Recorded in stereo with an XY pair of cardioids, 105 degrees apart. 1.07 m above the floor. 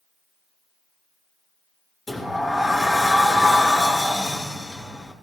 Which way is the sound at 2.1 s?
20° left.